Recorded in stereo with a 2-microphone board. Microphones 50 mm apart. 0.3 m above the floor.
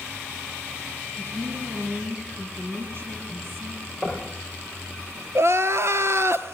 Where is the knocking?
25° right (ahead or behind), 6.5 m.